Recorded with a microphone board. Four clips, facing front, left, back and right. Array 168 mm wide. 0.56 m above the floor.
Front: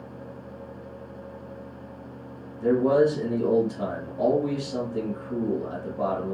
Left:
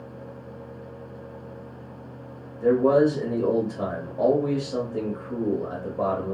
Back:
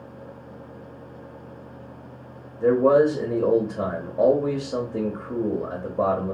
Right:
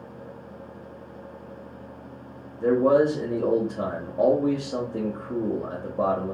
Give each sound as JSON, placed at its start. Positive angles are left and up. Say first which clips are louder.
{"t": 2.6, "sound": "a man speaking", "louder": "left 1 dB, back 3 dB", "azimuth_deg": -155, "distance_m": 0.9}